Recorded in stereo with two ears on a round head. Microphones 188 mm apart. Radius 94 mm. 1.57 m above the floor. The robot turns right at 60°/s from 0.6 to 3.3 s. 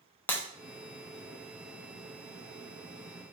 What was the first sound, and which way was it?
Breaking glass, 10° left (ahead or behind).